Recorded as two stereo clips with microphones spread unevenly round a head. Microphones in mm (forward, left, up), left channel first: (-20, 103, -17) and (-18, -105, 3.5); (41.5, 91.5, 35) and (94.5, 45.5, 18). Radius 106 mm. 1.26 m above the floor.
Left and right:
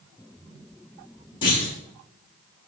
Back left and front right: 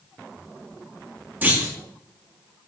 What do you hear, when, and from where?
1.4 s a clunk: 25° left, 4 m